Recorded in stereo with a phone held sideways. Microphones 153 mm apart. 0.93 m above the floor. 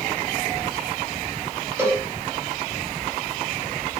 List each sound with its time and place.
1.8 s a cowbell: 10° right (ahead or behind), 7 m